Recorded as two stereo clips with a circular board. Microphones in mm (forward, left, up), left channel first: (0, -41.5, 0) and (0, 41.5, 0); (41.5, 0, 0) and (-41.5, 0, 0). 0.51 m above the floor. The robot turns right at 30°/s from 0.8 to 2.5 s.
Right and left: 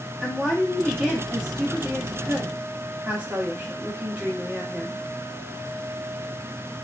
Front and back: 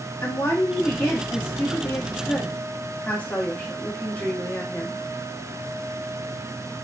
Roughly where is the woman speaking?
Ahead.